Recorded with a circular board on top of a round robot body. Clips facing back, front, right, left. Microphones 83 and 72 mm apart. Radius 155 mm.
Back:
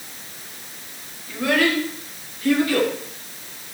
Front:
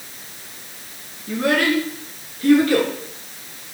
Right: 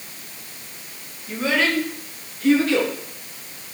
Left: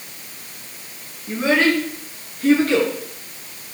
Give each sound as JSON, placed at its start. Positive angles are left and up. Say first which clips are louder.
{"t": 1.3, "sound": "a child speaking", "louder": "front 1 dB, left 4 dB", "azimuth_deg": 30, "distance_m": 4.5}